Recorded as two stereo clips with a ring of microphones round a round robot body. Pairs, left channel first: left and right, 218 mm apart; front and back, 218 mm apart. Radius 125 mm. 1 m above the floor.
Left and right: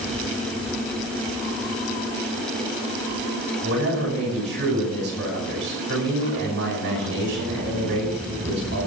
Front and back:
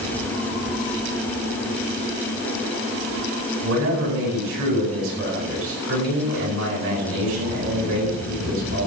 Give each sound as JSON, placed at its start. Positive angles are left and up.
{"t": 3.6, "sound": "a man speaking", "azimuth_deg": -135, "distance_m": 8.5}